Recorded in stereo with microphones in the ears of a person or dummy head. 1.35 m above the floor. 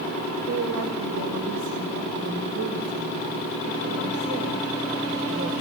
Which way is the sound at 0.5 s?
85° right.